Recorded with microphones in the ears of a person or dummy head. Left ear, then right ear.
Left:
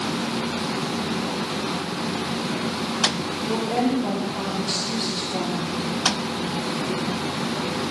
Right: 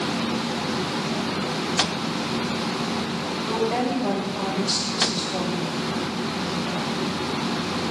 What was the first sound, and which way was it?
A woman speaking, centre (ahead or behind).